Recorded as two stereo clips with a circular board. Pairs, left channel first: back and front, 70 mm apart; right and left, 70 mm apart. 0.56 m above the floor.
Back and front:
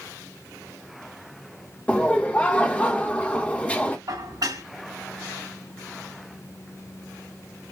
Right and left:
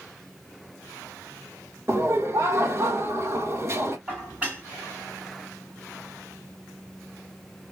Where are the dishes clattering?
20° left, 4.5 m.